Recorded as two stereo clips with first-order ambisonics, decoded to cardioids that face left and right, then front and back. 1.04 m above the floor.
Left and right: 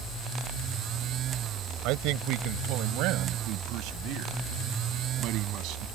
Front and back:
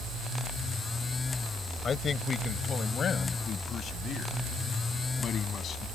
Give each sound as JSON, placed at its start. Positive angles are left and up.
{"t": 1.8, "sound": "a man speaking", "azimuth_deg": -65}